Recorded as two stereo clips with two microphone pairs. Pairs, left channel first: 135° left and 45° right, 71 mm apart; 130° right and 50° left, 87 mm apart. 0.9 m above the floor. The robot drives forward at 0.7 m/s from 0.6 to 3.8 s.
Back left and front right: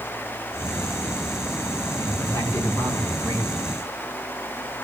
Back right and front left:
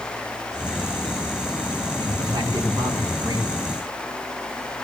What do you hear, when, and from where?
2.0 s a man speaking: 90° left, 7.5 m; by 3.6 s 100° left, 7.5 m